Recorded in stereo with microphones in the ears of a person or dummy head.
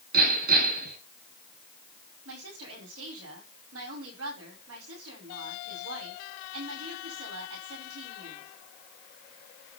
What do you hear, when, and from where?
0.1 s hammering: 55° right (ahead or behind), 6 m
2.2 s a woman speaking: 85° right, 7.5 m